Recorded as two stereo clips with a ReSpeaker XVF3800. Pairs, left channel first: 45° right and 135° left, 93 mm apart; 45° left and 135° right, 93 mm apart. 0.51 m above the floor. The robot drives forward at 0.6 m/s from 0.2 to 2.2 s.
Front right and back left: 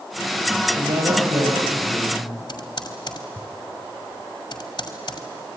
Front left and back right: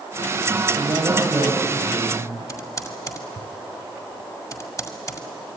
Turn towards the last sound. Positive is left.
turn(degrees=-5)